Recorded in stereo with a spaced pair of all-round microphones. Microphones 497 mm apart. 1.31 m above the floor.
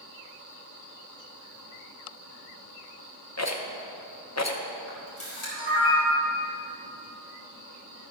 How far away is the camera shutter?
About 3.5 m.